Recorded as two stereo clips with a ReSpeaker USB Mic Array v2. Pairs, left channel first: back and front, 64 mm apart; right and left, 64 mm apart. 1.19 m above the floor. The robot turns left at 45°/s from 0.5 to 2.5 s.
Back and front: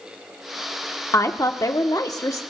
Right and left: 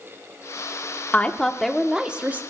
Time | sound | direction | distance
1.1 | a woman speaking | 155° right | 1.0 m